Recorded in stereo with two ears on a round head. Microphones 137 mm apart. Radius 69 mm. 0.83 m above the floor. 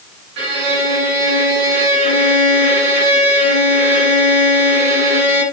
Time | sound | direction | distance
0.4 | a violin | 80° right | 4 m